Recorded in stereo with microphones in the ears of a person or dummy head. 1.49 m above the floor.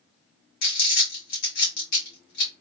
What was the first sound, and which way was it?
Crumpling, 65° left (ahead or behind).